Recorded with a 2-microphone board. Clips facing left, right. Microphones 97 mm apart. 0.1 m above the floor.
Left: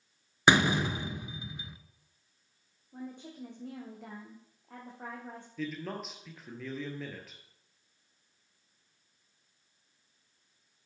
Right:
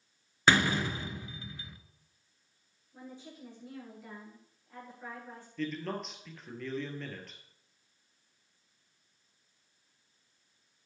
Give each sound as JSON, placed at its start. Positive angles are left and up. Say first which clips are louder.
{"t": 0.5, "sound": "a door slam", "louder": "left 2 dB", "side_deg": 20, "distance_m": 0.8}
{"t": 2.9, "sound": "a woman speaking", "louder": "left 5 dB", "side_deg": 70, "distance_m": 5.5}
{"t": 5.6, "sound": "a man speaking", "louder": "right 2 dB", "side_deg": 5, "distance_m": 2.5}